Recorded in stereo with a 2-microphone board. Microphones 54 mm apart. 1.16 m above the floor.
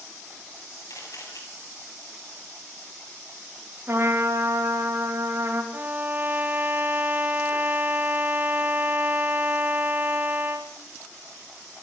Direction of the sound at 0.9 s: 75° left (ahead or behind).